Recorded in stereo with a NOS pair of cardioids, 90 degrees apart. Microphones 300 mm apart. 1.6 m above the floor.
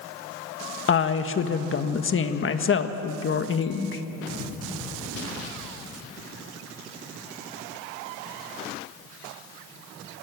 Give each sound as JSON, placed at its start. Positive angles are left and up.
{"t": 0.9, "sound": "a woman speaking", "azimuth_deg": 40, "distance_m": 1.7}